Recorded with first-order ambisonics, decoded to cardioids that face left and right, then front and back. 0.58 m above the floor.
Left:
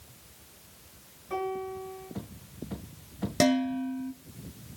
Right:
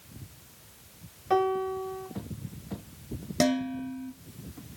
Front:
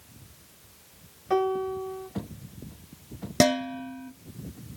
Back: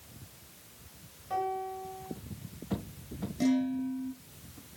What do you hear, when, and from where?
1.3 s a piano: 50° right, 1.8 m
3.4 s dishes clattering: 5° left, 1.4 m